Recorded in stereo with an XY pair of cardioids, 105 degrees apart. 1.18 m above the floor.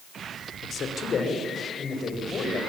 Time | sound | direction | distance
0.6 | a man speaking | 60° left | 3 m